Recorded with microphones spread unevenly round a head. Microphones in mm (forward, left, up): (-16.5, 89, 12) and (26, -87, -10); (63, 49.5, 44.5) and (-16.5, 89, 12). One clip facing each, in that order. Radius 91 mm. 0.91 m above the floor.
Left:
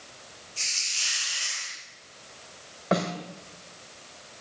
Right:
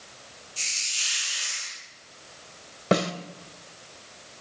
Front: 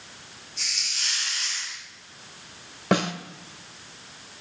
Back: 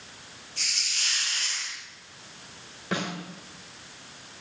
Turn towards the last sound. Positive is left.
turn(degrees=-30)